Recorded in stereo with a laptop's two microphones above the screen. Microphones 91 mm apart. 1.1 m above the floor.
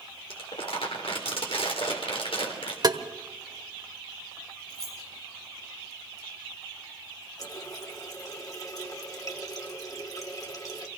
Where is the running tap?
40° left (ahead or behind), 2 m.